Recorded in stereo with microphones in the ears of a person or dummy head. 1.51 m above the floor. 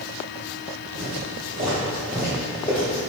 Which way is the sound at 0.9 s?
40° right (ahead or behind).